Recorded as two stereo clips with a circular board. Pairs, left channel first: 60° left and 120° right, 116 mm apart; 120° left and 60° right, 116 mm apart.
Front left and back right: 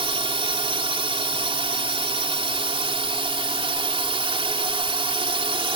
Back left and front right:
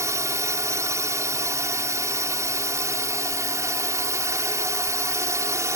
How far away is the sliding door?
I don't hear a sliding door.